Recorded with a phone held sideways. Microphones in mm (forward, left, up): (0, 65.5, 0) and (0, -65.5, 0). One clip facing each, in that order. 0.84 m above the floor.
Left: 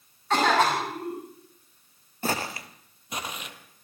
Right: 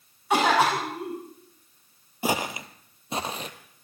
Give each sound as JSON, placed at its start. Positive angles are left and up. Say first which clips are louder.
{"t": 0.3, "sound": "a cough", "louder": "right 1 dB", "side_deg": -10, "distance_m": 6.5}
{"t": 2.2, "sound": "footsteps", "louder": "right 3 dB", "side_deg": -10, "distance_m": 1.1}